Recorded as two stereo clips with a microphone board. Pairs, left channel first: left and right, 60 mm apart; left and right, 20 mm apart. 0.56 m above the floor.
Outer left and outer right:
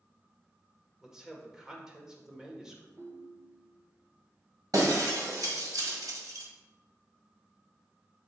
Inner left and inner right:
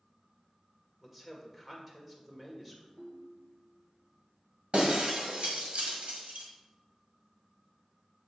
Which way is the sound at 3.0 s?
50° right (ahead or behind).